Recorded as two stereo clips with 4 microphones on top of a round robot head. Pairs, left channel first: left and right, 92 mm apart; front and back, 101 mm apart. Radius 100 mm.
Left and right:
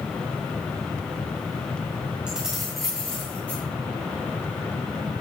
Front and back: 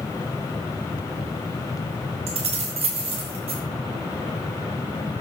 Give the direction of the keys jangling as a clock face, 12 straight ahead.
6 o'clock.